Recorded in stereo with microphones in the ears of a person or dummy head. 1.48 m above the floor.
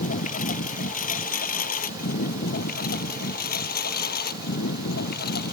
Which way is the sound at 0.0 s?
45° left (ahead or behind).